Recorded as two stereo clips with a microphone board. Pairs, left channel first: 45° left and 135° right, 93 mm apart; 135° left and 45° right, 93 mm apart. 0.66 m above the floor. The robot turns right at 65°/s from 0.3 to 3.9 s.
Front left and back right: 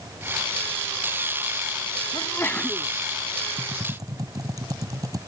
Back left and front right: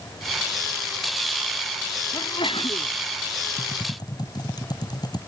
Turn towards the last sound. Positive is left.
turn(degrees=175)